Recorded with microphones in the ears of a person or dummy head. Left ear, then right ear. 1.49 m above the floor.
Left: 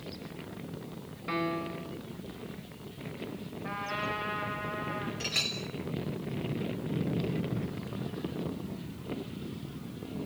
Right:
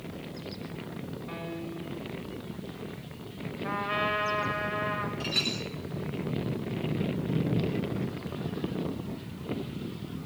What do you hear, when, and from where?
1.3 s a piano: 65° left (ahead or behind), 1.4 m
3.6 s a trumpet: 5° right (ahead or behind), 4 m
5.2 s a clink: 20° left (ahead or behind), 4 m